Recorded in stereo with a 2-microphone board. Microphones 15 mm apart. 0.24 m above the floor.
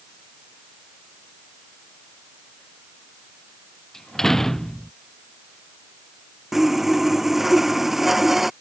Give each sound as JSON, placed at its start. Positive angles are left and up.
{"t": 3.9, "sound": "a door slam", "side_deg": 30}
{"t": 6.5, "sound": "sawing", "side_deg": -15}